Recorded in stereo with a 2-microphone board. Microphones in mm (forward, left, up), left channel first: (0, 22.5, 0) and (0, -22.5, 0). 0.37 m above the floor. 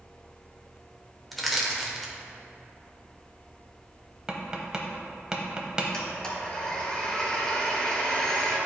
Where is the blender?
20° left (ahead or behind), 1.4 m.